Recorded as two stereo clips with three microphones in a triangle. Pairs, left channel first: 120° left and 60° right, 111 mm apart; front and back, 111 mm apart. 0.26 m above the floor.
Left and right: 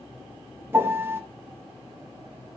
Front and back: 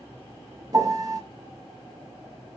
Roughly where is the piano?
Behind right.